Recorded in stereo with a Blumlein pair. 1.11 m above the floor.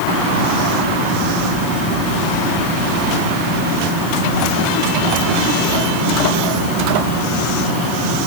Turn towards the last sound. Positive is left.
No sound to turn to.